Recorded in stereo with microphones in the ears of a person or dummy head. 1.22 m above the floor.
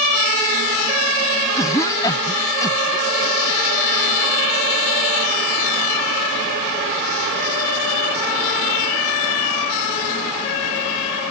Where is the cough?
20° left (ahead or behind).